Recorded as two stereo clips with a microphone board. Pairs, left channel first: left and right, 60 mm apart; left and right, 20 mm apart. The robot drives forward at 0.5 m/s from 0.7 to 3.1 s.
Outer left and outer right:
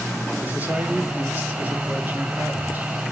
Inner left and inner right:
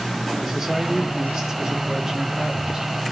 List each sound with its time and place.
0.4 s a man speaking: 30° right (ahead or behind), 5.5 m; by 2.9 s 35° right (ahead or behind), 5 m